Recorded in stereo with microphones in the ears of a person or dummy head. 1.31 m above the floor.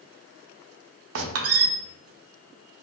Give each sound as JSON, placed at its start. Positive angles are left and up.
{"t": 1.1, "sound": "a squeak", "side_deg": -75, "distance_m": 0.5}